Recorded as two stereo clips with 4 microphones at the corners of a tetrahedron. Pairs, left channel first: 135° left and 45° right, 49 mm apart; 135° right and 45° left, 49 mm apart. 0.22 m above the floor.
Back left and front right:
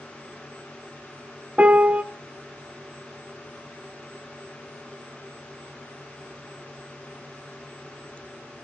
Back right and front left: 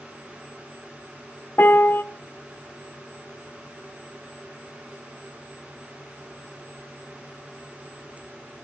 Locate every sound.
1.6 s a piano: 100° right, 0.5 m